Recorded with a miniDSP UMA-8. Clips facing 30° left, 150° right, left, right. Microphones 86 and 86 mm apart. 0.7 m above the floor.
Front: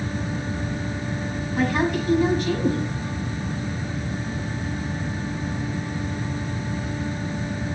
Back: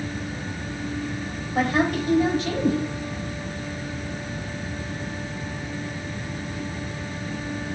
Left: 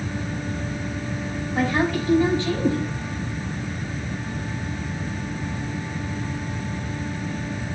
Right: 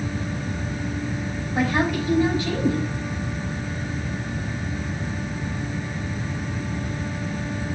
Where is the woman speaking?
165° right, 4.5 m.